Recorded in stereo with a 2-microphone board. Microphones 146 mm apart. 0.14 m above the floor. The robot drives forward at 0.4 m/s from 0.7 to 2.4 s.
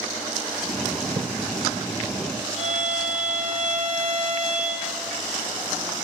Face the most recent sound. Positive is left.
turn(degrees=-55)  # may be behind; listen again after turning